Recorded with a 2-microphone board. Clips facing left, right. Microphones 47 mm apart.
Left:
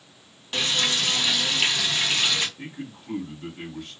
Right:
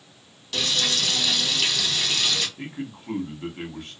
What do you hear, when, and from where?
0.5 s frying: 30° left (ahead or behind), 0.8 m
2.6 s a man speaking: 50° right (ahead or behind), 1.1 m